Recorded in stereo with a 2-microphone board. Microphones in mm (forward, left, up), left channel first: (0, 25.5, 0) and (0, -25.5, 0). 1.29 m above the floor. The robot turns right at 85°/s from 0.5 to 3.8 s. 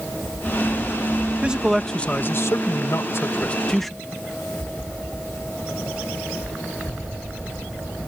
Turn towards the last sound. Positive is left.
turn(degrees=175)